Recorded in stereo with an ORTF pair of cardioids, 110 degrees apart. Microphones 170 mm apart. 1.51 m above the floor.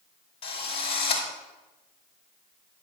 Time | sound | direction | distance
0.4 | a drill | 30° left | 5.5 m